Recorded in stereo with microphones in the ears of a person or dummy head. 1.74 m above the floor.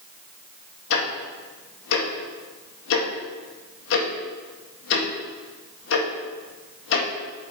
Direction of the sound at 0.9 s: 70° left (ahead or behind).